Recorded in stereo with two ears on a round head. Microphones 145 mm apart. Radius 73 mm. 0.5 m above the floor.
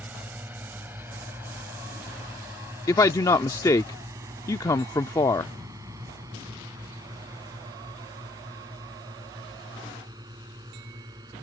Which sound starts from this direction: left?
A man speaking, at 2.9 s.